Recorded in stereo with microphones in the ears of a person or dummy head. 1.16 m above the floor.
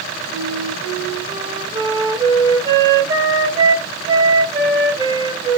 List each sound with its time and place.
0.3 s a flute: 20° right (ahead or behind), 2.0 m